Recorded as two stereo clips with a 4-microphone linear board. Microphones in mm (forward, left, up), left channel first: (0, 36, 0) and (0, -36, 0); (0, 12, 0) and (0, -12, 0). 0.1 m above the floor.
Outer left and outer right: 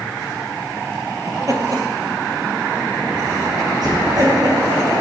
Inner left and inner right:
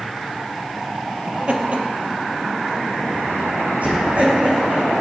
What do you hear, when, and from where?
1.3 s laughter: 50° right (ahead or behind), 2 m; by 4.8 s 70° right (ahead or behind), 6.5 m